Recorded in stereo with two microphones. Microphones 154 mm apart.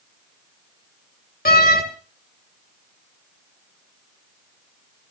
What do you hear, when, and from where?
1.4 s a door slam: 70° left (ahead or behind), 1.8 m